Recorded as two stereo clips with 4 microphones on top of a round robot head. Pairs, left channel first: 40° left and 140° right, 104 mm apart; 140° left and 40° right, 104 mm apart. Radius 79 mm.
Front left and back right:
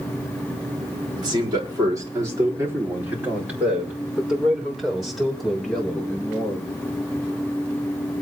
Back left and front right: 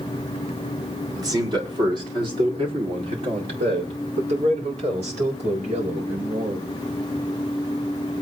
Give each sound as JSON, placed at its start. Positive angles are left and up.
{"t": 1.2, "sound": "a man speaking", "azimuth_deg": -95, "distance_m": 4.0}